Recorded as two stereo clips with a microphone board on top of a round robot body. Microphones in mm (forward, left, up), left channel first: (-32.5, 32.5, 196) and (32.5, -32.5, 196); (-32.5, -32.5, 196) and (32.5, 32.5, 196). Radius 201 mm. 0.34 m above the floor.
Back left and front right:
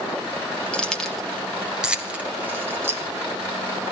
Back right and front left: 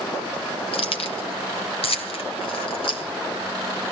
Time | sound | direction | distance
0.7 | keys jangling | 145° right | 1.9 m